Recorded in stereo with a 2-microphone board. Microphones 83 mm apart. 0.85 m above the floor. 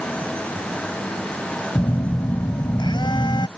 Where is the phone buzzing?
75° left (ahead or behind).